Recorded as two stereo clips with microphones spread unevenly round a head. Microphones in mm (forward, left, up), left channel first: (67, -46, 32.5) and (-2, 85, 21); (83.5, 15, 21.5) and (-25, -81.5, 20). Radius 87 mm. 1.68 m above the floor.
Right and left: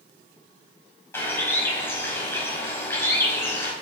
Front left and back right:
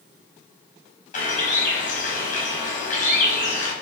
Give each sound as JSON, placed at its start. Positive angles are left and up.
{"t": 1.1, "sound": "a bird", "azimuth_deg": 10, "distance_m": 5.0}